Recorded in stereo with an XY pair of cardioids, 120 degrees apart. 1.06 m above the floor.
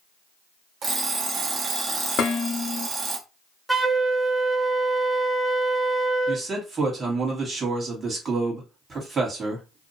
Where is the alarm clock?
40° right, 0.9 m.